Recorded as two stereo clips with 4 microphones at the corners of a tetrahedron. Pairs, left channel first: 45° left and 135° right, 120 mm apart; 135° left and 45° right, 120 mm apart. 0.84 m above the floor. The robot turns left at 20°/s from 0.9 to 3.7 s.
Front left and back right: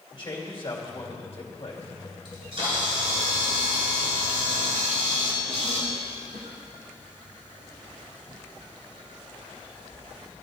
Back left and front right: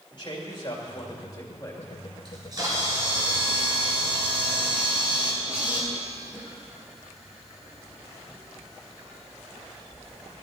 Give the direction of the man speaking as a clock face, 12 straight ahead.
9 o'clock.